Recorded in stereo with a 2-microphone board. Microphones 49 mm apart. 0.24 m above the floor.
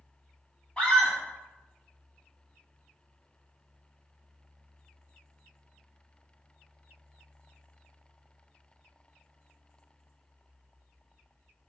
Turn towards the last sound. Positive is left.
turn(degrees=20)  # may be behind; listen again after turning